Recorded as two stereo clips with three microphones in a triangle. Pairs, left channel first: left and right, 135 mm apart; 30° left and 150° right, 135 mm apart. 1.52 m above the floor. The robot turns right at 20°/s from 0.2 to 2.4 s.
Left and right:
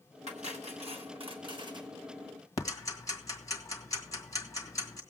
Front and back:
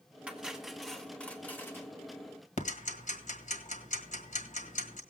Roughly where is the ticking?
Ahead left.